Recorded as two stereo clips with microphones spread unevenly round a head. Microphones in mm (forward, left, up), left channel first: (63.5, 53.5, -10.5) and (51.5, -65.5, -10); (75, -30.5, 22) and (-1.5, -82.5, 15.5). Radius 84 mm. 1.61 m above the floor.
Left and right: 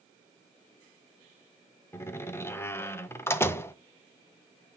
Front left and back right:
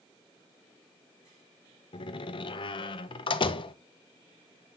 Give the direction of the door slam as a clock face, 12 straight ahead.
11 o'clock.